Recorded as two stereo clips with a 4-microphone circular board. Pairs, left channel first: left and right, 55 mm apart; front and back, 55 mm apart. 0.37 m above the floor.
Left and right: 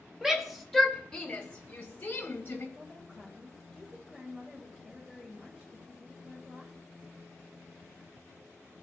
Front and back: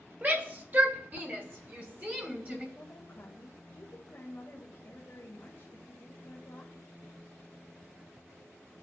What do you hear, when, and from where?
0.2 s a shout: 165° right, 1.5 m; by 2.6 s 130° left, 2.5 m
2.8 s a woman speaking: 15° right, 1.6 m